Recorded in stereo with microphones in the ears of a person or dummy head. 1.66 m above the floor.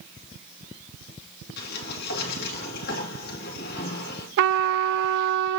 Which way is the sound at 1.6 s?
55° left (ahead or behind).